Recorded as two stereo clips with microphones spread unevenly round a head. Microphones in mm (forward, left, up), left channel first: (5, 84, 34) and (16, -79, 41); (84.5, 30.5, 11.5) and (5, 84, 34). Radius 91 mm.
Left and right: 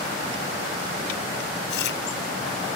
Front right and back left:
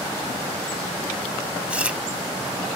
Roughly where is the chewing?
Left.